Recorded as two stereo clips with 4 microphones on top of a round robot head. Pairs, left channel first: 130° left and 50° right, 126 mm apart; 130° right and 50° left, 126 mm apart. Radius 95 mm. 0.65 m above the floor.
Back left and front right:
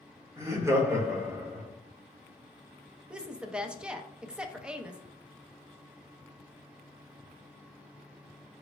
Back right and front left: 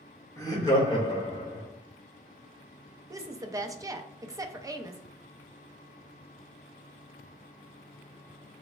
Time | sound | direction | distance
0.4 | laughter | 90° right | 1.3 m
3.1 | a woman speaking | 25° left | 0.5 m